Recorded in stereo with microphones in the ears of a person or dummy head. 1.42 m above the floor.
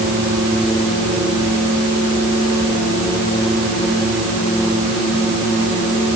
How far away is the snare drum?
No snare drum in this recording.